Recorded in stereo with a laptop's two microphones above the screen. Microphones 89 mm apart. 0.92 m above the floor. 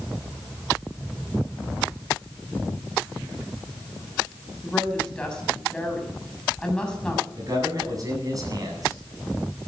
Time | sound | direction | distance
4.6 | a woman speaking | 10° left (ahead or behind) | 7 m
7.4 | a man speaking | 40° right (ahead or behind) | 8.5 m